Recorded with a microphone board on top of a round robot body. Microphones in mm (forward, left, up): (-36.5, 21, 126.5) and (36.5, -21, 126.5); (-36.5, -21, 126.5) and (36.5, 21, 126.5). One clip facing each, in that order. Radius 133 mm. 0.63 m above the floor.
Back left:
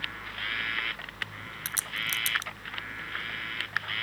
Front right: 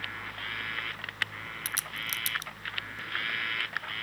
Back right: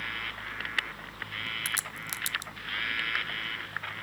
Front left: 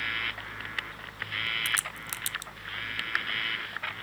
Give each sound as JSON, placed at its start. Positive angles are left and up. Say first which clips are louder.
{"t": 1.6, "sound": "a crack", "louder": "back left 4 dB, front left 3 dB", "azimuth_deg": 160}